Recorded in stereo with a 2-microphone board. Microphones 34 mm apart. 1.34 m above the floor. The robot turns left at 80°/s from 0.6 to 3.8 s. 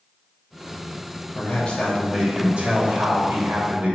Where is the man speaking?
50° left, 3 m; by 4.0 s 145° right, 3 m.